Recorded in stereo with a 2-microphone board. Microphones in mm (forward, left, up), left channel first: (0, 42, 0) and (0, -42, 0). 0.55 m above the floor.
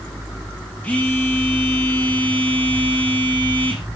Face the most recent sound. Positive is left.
turn(degrees=15)  # may be behind; listen again after turning